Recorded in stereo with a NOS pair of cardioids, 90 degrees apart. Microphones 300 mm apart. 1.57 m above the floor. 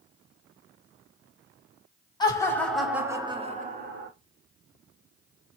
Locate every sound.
2.2 s laughter: 15° left, 1.4 m; by 4.1 s 40° right, 1.1 m